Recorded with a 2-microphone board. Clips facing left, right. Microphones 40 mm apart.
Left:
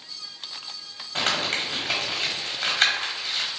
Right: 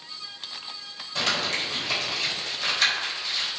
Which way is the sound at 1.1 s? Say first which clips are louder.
Left 1 dB; 45° left (ahead or behind).